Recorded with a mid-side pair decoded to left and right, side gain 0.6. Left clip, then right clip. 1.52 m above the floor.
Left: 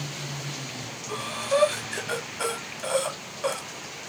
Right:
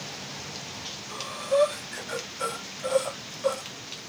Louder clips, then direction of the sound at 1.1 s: Left 1 dB; 40° left.